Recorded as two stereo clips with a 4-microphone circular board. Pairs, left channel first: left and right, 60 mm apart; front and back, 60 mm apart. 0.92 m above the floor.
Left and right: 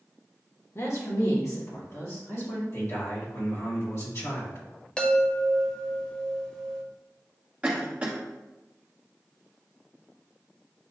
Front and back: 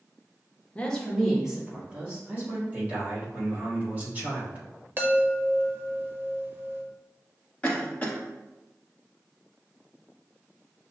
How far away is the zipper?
I don't hear a zipper.